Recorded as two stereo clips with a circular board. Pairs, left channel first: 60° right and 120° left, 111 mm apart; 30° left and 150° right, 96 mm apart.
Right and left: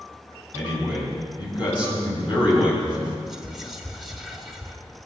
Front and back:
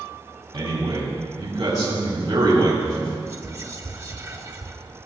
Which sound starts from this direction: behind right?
Whispering, at 3.3 s.